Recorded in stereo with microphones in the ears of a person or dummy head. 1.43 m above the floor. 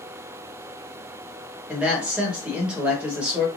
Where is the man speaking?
5° right (ahead or behind), 1.1 m.